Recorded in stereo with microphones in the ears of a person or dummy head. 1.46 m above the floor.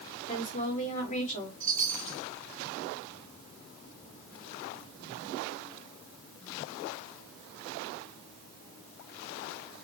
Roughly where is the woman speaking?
Left.